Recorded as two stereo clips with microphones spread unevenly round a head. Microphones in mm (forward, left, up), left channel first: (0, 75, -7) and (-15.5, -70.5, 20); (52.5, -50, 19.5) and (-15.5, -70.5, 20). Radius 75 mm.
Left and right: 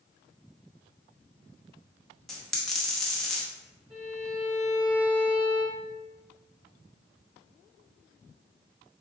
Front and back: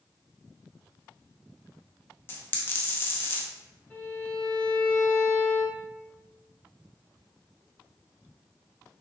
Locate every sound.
2.3 s a dropped coin: 20° right, 0.7 m
3.9 s a violin: 45° right, 2.0 m